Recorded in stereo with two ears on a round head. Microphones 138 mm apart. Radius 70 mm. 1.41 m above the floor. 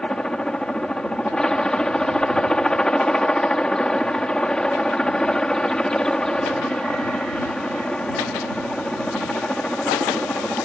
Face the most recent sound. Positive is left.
turn(degrees=5)  # may be behind; listen again after turning